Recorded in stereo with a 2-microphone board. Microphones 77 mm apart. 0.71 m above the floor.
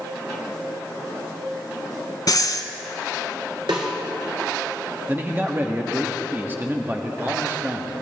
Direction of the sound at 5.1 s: 25° right (ahead or behind).